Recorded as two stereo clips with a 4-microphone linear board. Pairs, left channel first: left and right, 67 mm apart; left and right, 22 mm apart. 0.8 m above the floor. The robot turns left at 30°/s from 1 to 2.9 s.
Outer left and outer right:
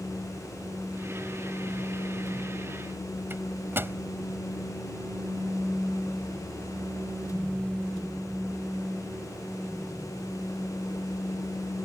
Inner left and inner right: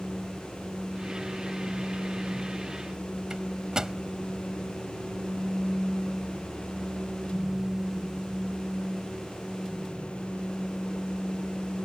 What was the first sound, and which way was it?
A microwave, 35° right (ahead or behind).